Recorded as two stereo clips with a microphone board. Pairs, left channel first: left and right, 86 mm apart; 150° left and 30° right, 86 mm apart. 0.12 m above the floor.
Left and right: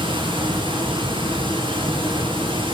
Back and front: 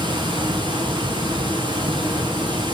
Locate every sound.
0.0 s running water: 65° right, 1.4 m